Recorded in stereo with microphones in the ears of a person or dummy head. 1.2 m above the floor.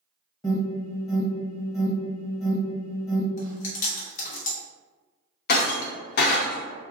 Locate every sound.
0.4 s an alarm: 15° left (ahead or behind), 1.0 m
3.4 s chewing: 45° left (ahead or behind), 0.8 m
5.5 s breaking glass: 50° left (ahead or behind), 0.7 m